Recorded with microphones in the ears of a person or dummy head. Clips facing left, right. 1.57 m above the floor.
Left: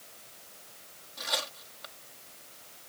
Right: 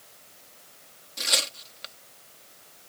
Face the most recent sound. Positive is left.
turn(degrees=-35)  # may be behind; listen again after turning